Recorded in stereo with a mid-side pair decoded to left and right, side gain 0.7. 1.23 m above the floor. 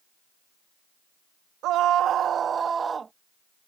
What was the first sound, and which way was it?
A scream, 60° right.